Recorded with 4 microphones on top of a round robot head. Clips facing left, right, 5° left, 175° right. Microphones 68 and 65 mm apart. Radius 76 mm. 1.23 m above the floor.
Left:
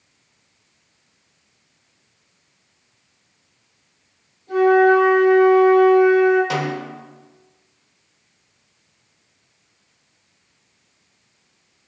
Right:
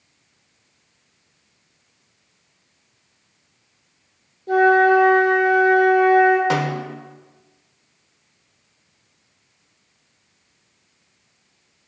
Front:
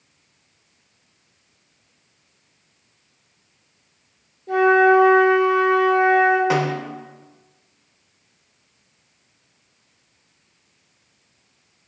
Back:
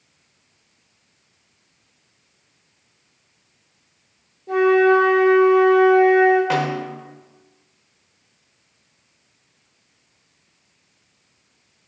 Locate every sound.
4.5 s a flute: 90° right, 3.5 m
6.5 s a snare drum: 80° right, 1.0 m